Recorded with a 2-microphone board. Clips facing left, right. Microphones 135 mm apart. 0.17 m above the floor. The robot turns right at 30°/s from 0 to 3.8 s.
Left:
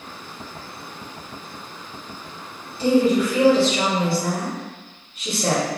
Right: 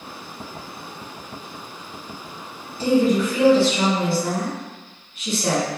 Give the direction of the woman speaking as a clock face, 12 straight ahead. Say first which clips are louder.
Left 1 dB; 10 o'clock.